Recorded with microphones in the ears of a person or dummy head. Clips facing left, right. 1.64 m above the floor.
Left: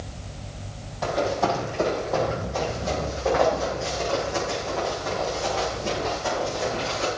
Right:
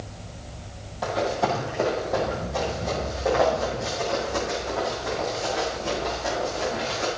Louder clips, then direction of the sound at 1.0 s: Left 1 dB; centre (ahead or behind).